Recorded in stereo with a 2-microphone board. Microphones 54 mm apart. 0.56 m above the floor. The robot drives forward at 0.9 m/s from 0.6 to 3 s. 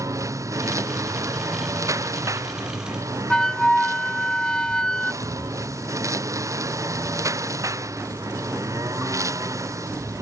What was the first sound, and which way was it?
A lawn mower, 90° right.